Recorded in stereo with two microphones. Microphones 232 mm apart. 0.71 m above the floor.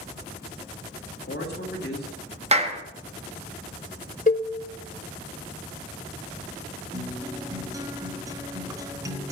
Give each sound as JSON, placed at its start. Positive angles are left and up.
{"t": 1.1, "sound": "a man speaking", "side_deg": 45, "distance_m": 1.6}
{"t": 2.5, "sound": "a clap", "side_deg": -25, "distance_m": 1.0}
{"t": 4.3, "sound": "a cowbell", "side_deg": 35, "distance_m": 0.7}
{"t": 6.9, "sound": "a guitar", "side_deg": -15, "distance_m": 0.6}